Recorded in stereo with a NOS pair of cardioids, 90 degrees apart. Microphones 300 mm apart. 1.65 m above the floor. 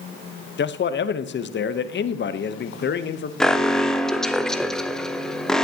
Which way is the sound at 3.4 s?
Straight ahead.